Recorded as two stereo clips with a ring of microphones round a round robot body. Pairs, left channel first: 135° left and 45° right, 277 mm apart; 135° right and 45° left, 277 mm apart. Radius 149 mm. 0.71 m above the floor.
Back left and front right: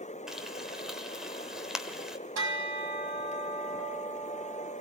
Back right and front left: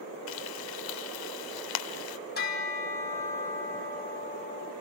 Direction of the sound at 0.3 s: 135° right.